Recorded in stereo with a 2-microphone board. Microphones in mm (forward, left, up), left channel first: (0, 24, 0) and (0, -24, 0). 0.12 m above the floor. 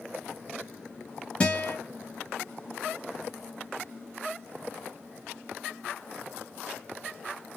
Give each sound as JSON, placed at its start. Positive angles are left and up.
{"t": 1.4, "sound": "a guitar", "side_deg": 20, "distance_m": 1.9}